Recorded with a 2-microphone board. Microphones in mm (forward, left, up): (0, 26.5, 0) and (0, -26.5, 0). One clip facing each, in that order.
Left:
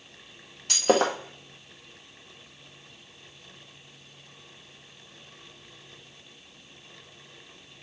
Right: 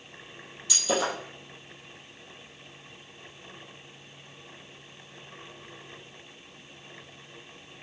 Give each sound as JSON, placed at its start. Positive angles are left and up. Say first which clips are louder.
{"t": 0.7, "sound": "breaking glass", "louder": "left 6 dB", "side_deg": 55, "distance_m": 1.4}